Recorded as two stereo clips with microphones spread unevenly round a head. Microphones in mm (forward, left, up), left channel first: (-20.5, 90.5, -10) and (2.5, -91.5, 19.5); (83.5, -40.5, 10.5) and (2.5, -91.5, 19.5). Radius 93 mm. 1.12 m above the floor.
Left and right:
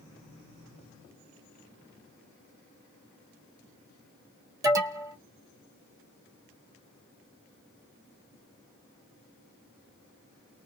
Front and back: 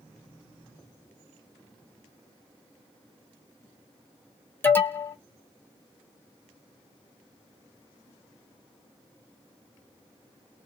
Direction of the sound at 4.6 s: 10° right.